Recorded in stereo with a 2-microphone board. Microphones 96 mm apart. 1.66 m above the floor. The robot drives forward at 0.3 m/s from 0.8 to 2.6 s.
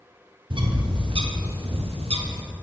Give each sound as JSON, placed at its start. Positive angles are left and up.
{"t": 0.5, "sound": "a bird", "side_deg": -55, "distance_m": 0.7}